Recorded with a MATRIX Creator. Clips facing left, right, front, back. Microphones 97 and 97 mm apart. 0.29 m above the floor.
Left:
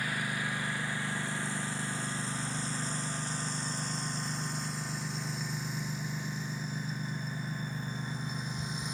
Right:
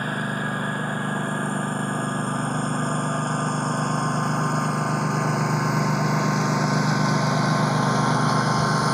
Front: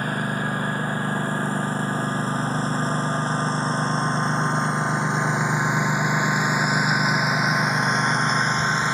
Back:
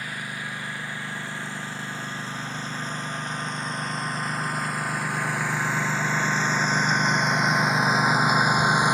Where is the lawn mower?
45° right; by 9.0 s 105° right.